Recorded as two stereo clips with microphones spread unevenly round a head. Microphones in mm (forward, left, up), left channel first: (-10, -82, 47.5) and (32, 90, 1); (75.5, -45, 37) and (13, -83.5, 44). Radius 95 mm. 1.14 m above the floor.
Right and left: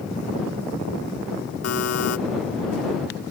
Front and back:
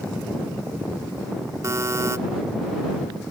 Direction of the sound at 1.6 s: 100° right.